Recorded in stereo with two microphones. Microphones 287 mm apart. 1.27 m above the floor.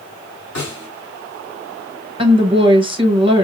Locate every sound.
0.6 s a snare drum: 75° left (ahead or behind), 2.5 m
2.2 s a woman speaking: 20° right (ahead or behind), 1.2 m